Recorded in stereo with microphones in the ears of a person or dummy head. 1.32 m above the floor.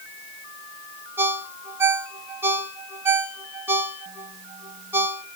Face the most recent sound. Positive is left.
turn(degrees=-10)  # may be behind; listen again after turning